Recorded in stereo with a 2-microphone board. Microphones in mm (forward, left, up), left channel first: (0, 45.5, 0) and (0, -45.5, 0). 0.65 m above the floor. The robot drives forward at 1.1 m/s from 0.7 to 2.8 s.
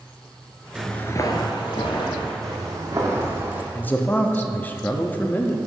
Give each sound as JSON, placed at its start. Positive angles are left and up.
{"t": 0.8, "sound": "footsteps", "side_deg": -10, "distance_m": 0.6}
{"t": 2.4, "sound": "footsteps", "side_deg": -35, "distance_m": 1.8}
{"t": 3.8, "sound": "a man speaking", "side_deg": 20, "distance_m": 0.5}